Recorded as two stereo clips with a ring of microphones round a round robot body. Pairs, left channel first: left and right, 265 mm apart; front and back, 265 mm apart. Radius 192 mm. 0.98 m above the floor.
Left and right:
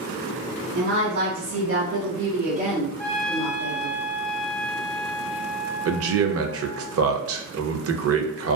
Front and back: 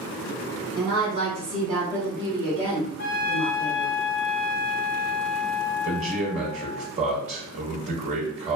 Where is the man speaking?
115° right, 0.6 m.